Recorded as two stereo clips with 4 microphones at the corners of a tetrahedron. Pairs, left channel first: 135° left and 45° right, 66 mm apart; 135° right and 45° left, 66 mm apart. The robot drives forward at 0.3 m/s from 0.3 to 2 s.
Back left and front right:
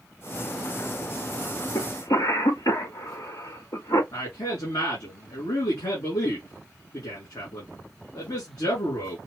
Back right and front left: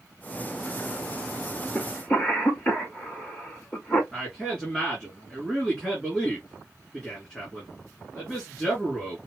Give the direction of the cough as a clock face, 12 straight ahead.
7 o'clock.